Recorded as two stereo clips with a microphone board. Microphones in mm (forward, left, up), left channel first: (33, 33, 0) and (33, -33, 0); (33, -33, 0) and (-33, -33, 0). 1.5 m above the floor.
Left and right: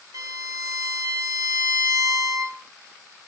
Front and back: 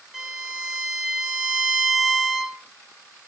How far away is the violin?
About 2 m.